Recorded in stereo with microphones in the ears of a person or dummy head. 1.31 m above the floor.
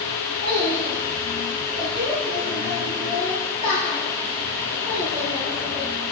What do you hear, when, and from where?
0.4 s a child speaking: 40° right (ahead or behind), 7 m; by 5.8 s 25° right (ahead or behind), 10.5 m